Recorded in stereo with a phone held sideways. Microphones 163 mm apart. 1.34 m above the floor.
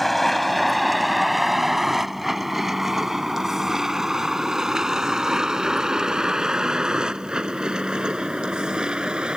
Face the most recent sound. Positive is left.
turn(degrees=-5)  # may be behind; listen again after turning